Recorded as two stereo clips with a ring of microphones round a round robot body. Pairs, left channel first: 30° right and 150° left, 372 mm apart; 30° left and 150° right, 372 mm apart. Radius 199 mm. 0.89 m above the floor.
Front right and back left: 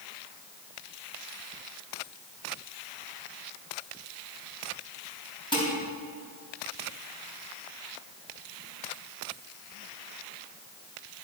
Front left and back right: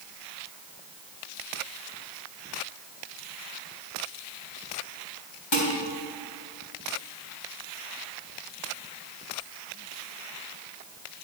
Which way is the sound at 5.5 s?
50° left.